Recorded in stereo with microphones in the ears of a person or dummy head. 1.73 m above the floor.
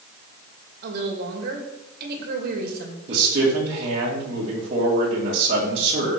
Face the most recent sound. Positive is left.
turn(degrees=-45)  # may be behind; listen again after turning